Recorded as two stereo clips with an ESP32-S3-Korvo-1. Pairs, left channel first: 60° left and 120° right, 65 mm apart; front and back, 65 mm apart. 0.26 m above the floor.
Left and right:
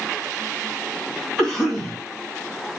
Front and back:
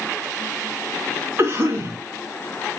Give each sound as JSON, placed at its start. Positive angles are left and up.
{"t": 1.4, "sound": "a cough", "azimuth_deg": 140, "distance_m": 2.5}